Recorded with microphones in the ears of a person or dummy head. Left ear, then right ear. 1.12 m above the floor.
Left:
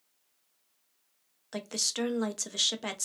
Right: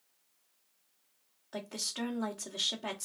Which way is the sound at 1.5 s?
55° left (ahead or behind).